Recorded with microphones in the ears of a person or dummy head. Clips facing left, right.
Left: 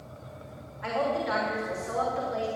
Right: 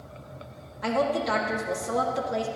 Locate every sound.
0.8 s a woman speaking: 50° right (ahead or behind), 1.6 m